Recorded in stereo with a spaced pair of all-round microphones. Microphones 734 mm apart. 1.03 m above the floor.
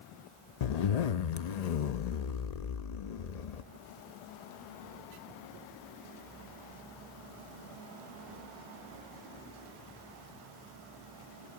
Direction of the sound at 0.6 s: 60° left (ahead or behind).